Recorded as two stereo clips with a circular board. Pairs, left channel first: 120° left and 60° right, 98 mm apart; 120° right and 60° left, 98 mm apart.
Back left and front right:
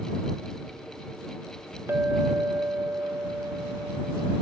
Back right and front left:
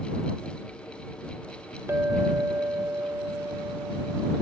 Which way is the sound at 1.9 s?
Straight ahead.